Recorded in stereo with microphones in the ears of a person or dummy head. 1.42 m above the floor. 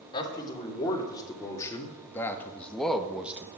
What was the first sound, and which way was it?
A man speaking, 25° left (ahead or behind).